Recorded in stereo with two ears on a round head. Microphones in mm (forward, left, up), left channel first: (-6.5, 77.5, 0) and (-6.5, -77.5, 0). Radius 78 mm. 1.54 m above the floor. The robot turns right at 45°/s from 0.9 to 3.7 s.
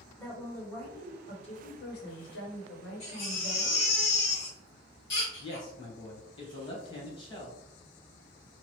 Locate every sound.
0.2 s a woman speaking: 10° left, 1.1 m; by 4.0 s 135° left, 1.1 m
3.0 s a baby crying: 35° left, 1.6 m; by 5.7 s 70° left, 1.6 m
5.4 s a man speaking: 25° left (ahead or behind), 1.2 m